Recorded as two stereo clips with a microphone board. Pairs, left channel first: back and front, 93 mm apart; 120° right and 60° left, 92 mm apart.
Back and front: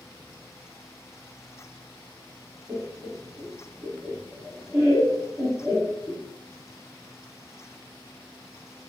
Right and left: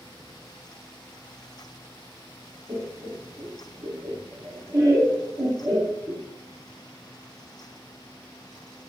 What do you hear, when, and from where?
2.7 s laughter: 45° left, 1.4 m